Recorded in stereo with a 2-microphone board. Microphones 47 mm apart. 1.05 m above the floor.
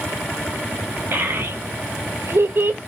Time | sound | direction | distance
1.1 | a child speaking | 50° right (ahead or behind) | 0.8 m